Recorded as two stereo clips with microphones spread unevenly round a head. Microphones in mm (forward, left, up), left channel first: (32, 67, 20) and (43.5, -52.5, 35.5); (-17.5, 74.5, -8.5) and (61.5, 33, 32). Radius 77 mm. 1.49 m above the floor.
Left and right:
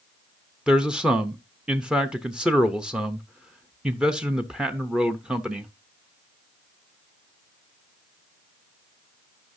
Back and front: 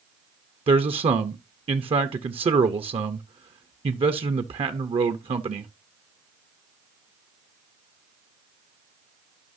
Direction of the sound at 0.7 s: Straight ahead.